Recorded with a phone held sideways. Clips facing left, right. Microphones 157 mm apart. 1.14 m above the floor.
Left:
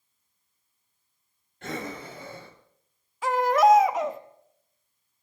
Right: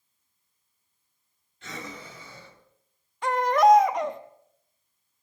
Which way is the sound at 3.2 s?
Centre (ahead or behind).